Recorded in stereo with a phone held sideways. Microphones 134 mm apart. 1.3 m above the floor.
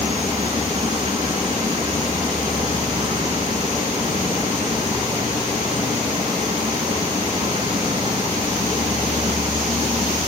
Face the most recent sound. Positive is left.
turn(degrees=-50)  # may be behind; listen again after turning